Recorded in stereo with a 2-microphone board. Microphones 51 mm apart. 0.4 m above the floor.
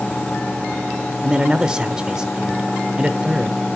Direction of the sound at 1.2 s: 15° right (ahead or behind).